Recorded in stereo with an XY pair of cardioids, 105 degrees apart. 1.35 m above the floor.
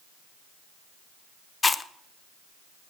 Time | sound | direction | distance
1.6 | chewing | 25° left | 0.9 m